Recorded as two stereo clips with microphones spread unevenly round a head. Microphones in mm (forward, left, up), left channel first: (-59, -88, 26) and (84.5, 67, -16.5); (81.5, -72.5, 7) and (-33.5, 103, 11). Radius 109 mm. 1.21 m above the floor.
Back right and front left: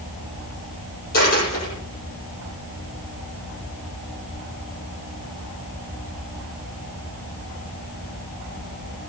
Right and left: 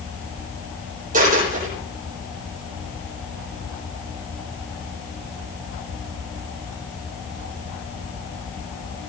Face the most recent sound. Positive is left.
turn(degrees=180)